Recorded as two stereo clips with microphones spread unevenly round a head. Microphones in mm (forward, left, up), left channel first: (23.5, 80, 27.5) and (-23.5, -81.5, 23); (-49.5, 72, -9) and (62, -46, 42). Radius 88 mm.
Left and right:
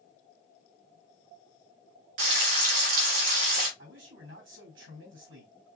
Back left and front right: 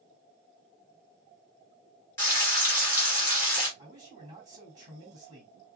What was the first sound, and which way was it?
Frying, 150° right.